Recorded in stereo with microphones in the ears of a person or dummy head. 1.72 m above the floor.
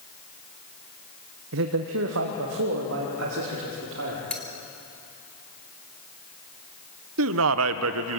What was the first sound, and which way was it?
A man speaking, 70° right (ahead or behind).